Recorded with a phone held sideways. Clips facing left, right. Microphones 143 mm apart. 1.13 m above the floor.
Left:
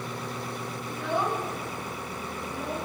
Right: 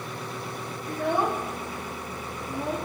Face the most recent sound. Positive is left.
turn(degrees=-80)